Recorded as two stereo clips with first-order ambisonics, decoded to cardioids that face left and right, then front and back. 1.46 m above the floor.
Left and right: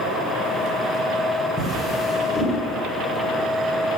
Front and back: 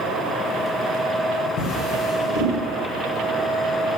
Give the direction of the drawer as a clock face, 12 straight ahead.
11 o'clock.